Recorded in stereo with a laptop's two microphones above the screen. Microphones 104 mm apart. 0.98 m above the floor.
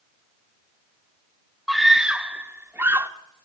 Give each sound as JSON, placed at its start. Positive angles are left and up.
{"t": 1.7, "sound": "a scream", "side_deg": 0, "distance_m": 1.4}